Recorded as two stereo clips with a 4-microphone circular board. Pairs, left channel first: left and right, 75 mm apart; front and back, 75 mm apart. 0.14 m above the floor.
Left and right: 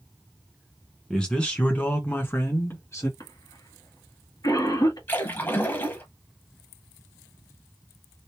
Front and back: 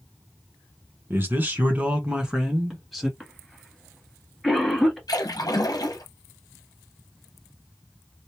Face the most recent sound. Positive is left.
turn(degrees=30)